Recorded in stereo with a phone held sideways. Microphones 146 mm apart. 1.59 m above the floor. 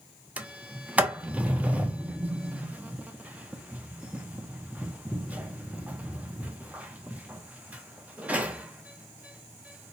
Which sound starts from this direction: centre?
A sliding door, at 0.4 s.